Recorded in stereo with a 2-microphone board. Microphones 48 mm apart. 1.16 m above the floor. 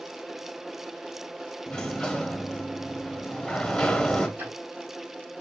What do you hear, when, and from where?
1.7 s a sliding door: 10° left (ahead or behind), 0.6 m
4.4 s ticking: 50° right (ahead or behind), 2.5 m